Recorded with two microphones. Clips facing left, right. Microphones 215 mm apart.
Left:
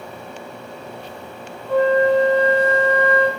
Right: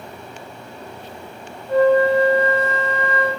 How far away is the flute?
About 5 m.